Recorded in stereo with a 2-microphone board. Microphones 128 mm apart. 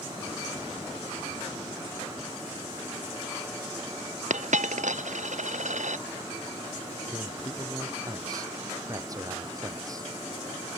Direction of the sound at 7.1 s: 30° right (ahead or behind).